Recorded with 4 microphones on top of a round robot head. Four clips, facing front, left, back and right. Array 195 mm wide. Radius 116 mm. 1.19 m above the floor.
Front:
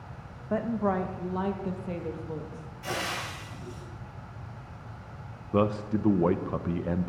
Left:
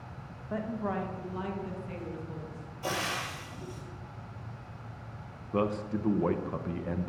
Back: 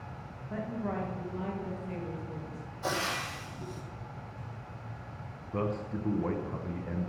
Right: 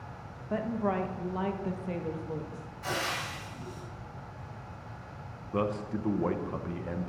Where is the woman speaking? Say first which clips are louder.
Right 3 dB, front 8 dB; 15° right, 1.6 m; by 2.7 s 45° right, 2.5 m.